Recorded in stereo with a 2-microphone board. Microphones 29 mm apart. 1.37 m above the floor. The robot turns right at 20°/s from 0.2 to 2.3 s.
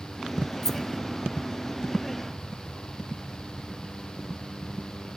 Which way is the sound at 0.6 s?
10° left (ahead or behind).